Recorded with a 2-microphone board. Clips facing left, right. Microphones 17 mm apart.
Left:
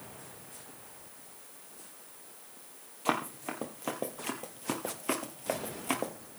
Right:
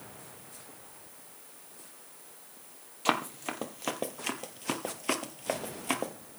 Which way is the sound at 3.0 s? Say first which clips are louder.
Right 2 dB; 65° right (ahead or behind).